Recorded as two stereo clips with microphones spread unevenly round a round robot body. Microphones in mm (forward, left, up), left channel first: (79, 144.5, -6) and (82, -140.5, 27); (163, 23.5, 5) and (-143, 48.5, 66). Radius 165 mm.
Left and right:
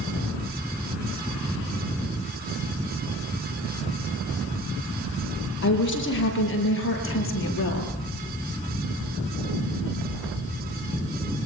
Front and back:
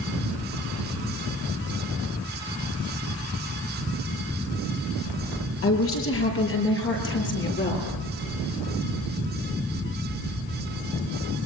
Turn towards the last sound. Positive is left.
turn(degrees=50)